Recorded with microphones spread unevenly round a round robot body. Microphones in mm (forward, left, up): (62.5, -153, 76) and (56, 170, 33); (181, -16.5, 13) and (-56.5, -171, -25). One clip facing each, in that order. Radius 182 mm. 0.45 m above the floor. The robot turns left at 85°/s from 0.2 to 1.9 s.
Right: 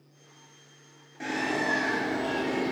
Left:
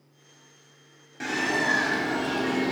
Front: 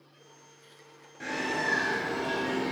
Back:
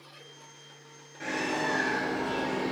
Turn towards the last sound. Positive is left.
turn(degrees=65)